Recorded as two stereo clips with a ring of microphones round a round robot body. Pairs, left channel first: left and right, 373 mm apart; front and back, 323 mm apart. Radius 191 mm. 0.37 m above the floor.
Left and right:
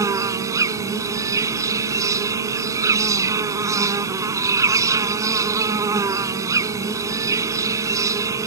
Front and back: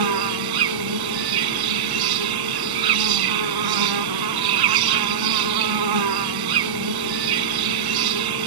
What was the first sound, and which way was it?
An insect, 170° right.